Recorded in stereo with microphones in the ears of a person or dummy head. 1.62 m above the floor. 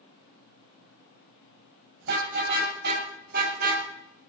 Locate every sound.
2.0 s a car horn: 60° right (ahead or behind), 5 m; by 3.9 s 50° right (ahead or behind), 3.5 m